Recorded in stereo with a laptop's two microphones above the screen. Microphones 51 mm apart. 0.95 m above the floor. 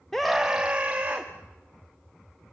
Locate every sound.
0.1 s a scream: 10° left (ahead or behind), 0.7 m; by 1.3 s 35° right (ahead or behind), 1.6 m